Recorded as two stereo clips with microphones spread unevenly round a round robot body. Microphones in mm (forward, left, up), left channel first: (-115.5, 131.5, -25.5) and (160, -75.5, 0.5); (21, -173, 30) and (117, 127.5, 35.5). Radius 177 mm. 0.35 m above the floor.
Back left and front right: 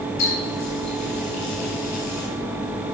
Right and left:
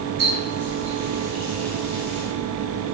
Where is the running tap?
100° left, 4 m.